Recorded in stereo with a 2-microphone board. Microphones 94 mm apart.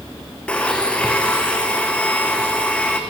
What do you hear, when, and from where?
0.5 s a blender: 10° left (ahead or behind), 3 m